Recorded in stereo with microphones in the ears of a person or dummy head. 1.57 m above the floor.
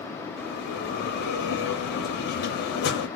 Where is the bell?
70° left (ahead or behind), 0.9 m.